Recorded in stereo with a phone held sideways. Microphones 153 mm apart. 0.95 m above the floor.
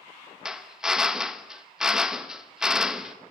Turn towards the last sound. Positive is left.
turn(degrees=-5)  # may be behind; listen again after turning